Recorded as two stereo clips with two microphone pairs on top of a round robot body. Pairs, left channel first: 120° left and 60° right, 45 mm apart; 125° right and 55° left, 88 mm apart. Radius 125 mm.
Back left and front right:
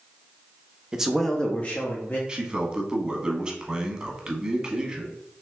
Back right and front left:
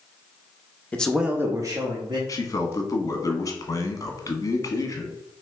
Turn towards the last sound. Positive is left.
turn(degrees=-115)